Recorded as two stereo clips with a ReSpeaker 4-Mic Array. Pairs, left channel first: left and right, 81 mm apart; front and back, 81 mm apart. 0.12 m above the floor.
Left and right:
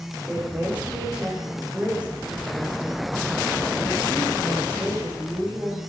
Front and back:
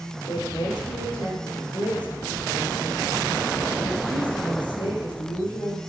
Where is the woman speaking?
15° right, 5.5 m.